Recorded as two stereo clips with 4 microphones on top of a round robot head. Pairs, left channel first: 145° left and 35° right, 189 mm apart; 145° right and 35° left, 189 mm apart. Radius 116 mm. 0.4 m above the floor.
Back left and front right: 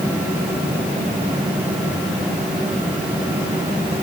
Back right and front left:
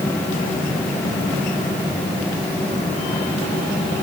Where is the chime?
I don't hear a chime.